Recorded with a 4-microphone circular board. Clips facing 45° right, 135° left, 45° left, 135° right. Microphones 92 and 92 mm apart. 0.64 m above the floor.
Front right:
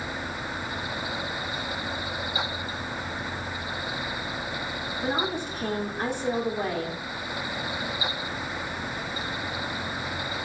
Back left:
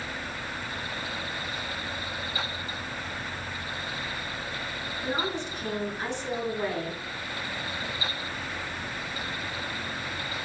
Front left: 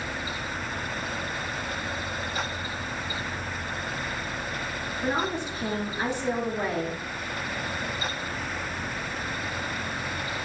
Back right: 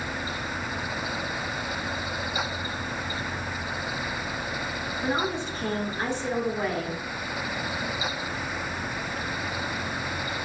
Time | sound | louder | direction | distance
5.0 | a woman speaking | front right 2 dB, even | 35° right | 0.9 m